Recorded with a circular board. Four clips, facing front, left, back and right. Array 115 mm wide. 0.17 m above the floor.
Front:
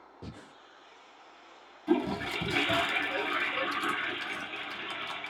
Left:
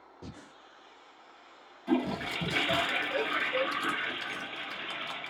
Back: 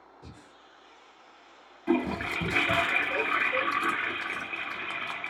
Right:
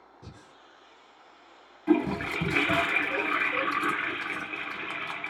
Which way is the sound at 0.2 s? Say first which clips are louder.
Left 4 dB, front 6 dB; 35° left.